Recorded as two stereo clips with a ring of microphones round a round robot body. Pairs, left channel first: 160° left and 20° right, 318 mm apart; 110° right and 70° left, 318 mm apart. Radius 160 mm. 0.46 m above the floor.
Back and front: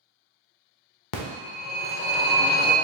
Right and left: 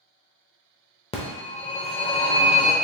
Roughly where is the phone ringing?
Behind.